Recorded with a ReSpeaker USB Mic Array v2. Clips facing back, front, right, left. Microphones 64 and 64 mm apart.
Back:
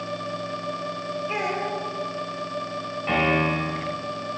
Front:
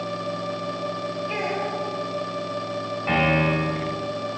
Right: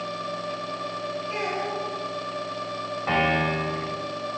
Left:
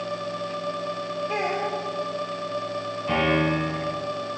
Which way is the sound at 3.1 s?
75° right.